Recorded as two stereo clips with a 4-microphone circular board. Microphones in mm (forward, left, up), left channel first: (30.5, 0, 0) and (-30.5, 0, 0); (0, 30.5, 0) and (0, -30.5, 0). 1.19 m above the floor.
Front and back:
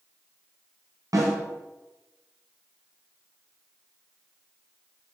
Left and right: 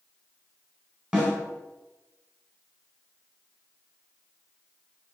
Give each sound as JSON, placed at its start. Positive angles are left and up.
{"t": 1.1, "sound": "a snare drum", "azimuth_deg": -165, "distance_m": 3.0}